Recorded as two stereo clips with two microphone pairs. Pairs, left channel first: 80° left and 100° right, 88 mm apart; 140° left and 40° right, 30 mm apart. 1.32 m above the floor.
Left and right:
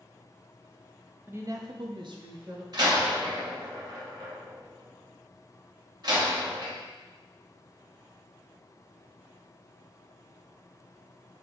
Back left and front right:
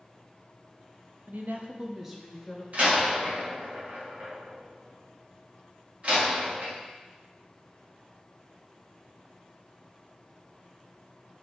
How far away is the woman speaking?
About 0.6 m.